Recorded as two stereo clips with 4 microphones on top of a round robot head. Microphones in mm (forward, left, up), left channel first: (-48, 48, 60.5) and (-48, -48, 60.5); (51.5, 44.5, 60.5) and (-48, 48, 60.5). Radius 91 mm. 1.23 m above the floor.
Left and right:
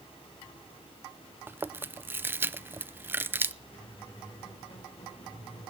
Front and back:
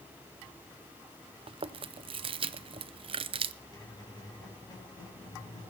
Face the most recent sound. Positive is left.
turn(degrees=50)